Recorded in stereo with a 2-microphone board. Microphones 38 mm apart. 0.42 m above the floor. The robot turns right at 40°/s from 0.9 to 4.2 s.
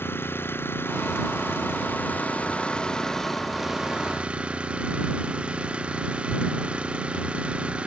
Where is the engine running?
80° left; by 7.9 s 150° right.